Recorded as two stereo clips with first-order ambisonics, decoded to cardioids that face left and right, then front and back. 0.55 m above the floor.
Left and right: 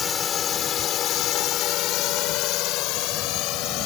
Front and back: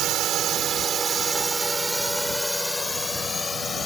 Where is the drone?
145° left; by 3.9 s 65° left.